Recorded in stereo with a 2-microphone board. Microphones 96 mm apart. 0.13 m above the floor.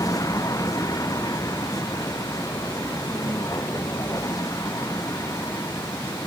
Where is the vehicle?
40° left (ahead or behind); by 6.3 s 35° left (ahead or behind).